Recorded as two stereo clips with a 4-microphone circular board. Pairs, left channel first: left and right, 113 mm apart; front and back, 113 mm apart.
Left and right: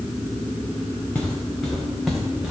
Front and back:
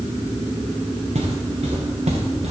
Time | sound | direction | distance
1.1 | footsteps | 170° left | 3 m